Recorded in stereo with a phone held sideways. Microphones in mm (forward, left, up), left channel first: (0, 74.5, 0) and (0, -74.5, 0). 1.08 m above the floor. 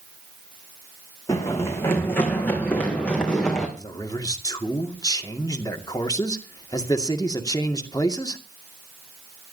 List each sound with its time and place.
1.3 s running footsteps: 20° left (ahead or behind), 3.5 m; by 3.7 s 5° left (ahead or behind), 4.5 m
3.8 s a man speaking: 25° left (ahead or behind), 2 m